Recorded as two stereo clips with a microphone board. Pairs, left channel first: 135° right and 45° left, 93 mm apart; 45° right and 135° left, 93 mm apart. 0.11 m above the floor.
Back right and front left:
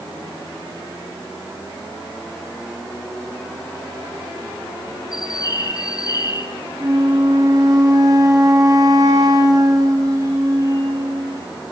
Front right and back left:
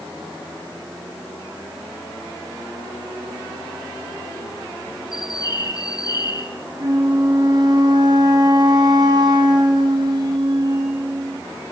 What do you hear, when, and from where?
5.1 s a bird: 90° right, 1.3 m
6.8 s a flute: 95° left, 3.5 m